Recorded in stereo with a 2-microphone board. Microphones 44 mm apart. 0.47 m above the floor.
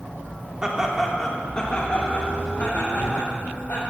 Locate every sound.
0.6 s laughter: 20° right (ahead or behind), 1.4 m; by 3.8 s 60° left (ahead or behind), 3 m